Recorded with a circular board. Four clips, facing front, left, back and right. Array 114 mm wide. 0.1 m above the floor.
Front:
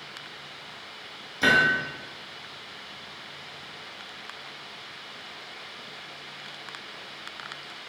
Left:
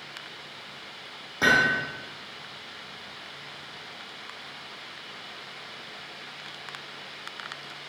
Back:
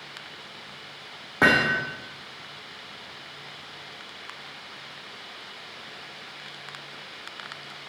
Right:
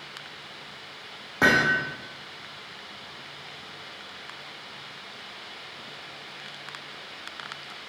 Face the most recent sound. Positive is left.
turn(degrees=-160)